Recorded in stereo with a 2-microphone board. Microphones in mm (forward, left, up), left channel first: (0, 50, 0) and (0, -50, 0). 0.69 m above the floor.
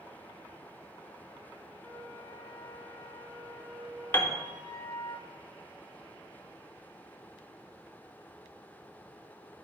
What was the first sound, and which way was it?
A flute, 20° left (ahead or behind).